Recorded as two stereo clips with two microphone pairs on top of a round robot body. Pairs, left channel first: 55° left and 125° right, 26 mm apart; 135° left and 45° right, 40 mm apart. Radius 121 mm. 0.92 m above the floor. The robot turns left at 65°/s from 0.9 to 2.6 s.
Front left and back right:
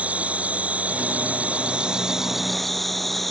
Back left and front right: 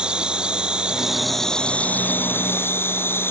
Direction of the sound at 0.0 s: 110° right.